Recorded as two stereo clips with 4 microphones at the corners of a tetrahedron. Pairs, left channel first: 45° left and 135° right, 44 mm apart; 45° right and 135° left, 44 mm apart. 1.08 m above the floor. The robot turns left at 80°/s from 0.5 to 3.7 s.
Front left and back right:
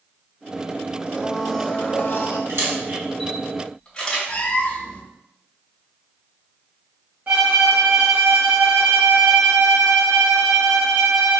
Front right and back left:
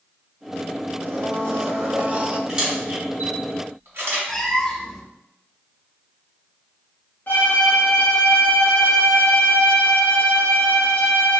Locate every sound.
1.1 s a blender: 165° left, 0.6 m; by 2.4 s 60° left, 0.6 m
2.5 s a camera shutter: 145° right, 2 m; by 4.2 s 120° left, 2 m
4.3 s a cat meowing: 25° left, 0.7 m
7.3 s a violin: 85° right, 1.4 m